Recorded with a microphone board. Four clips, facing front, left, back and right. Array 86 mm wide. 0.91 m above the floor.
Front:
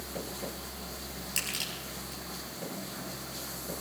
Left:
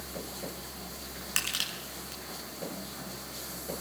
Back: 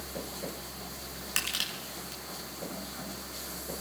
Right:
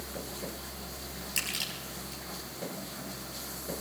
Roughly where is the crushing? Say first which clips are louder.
Left 3 dB, back 4 dB; behind left.